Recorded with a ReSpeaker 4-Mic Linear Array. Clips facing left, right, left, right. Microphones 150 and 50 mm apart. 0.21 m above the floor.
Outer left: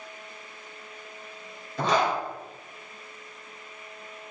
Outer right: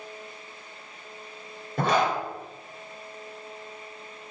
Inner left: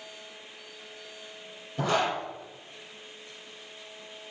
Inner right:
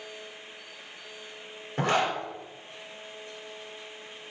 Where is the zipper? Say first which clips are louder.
Outer right 1 dB, inner right 1 dB; 55° right (ahead or behind), 2.5 m.